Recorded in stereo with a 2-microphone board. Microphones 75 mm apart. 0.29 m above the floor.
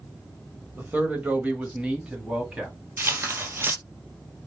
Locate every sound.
0.8 s a man speaking: 20° right (ahead or behind), 0.9 m; by 2.7 s 10° right (ahead or behind), 1.5 m
3.0 s tearing paper: 30° right (ahead or behind), 1.0 m